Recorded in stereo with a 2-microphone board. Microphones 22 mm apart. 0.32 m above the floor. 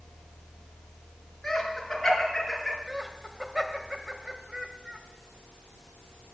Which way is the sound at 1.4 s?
Centre (ahead or behind).